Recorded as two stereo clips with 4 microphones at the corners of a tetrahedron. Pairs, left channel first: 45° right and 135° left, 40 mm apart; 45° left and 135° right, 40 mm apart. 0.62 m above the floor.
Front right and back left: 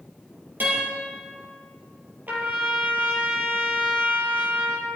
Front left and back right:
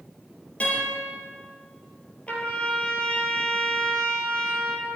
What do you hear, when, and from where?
0.6 s a guitar: 105° left, 5 m
2.3 s a trumpet: 100° left, 3.5 m